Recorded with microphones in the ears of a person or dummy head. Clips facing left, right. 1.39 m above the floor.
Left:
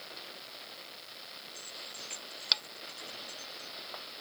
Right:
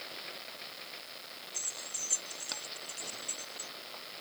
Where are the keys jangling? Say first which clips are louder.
Left 1 dB; 40° right (ahead or behind); by 3.7 s 30° right (ahead or behind).